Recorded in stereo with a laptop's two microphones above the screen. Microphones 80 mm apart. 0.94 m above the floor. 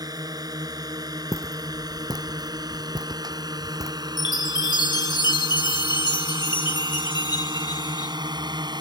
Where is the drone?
55° right (ahead or behind); by 8.8 s 65° right (ahead or behind).